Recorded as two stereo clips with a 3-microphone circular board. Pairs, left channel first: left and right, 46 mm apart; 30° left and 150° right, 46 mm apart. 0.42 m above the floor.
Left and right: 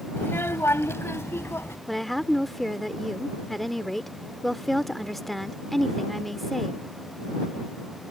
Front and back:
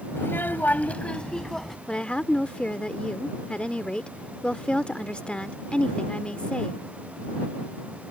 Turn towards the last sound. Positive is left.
turn(degrees=5)